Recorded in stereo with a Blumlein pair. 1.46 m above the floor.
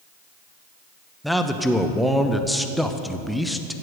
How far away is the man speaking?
About 0.9 m.